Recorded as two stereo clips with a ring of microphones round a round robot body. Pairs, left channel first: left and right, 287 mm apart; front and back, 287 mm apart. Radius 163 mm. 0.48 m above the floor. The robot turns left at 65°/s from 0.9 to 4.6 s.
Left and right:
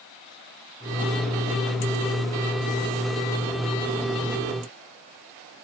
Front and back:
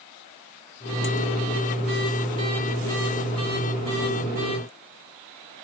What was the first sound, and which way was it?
Only background noise.